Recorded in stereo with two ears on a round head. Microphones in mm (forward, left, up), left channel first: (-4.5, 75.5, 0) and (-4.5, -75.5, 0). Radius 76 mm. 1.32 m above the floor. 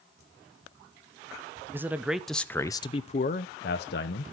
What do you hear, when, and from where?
1.7 s a man speaking: 15° right (ahead or behind), 0.8 m; by 4.2 s 65° left (ahead or behind), 0.8 m